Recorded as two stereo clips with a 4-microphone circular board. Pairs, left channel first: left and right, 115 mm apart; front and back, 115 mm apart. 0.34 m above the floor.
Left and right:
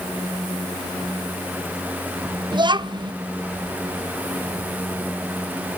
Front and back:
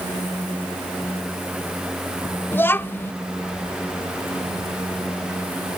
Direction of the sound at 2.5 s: 65° right.